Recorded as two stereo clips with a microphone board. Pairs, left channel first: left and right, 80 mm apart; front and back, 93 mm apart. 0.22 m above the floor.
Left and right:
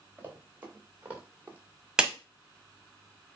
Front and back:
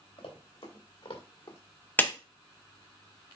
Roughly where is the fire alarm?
I don't hear a fire alarm.